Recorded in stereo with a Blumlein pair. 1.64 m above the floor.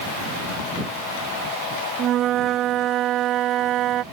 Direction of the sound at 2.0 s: 30° right.